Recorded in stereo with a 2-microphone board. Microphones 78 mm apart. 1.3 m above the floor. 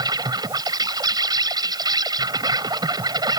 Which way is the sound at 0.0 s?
65° right (ahead or behind).